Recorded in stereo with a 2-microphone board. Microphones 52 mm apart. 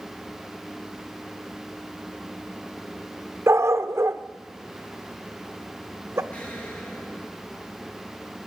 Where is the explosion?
25° left (ahead or behind), 8 m.